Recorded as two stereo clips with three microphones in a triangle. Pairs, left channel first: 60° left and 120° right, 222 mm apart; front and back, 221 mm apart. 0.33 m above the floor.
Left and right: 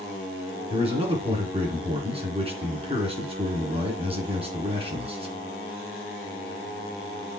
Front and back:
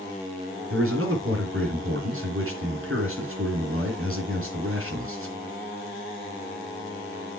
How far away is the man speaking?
About 3 m.